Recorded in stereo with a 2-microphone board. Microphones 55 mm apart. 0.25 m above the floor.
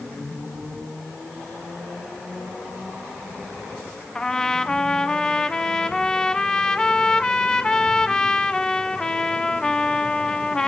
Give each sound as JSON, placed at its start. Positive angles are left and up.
{"t": 4.2, "sound": "a trumpet", "side_deg": 15, "distance_m": 1.1}